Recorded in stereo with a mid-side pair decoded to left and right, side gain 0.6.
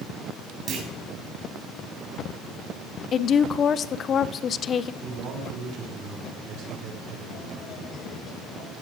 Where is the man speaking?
55° right, 6 m.